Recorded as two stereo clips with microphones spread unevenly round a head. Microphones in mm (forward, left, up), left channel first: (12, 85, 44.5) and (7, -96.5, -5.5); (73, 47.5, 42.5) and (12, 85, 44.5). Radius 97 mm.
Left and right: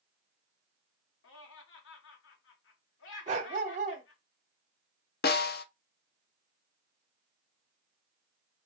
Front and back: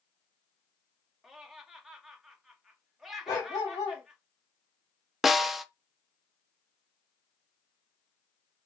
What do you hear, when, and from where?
1.2 s laughter: 60° left, 1.8 m
3.3 s a dog barking: 40° right, 0.8 m
5.2 s a snare drum: 60° left, 0.7 m